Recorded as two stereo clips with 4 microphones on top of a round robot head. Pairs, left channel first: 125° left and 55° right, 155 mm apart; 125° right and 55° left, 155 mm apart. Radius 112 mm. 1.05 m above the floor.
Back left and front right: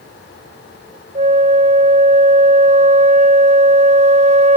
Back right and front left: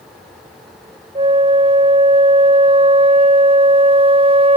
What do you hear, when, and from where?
1.1 s a flute: 5° right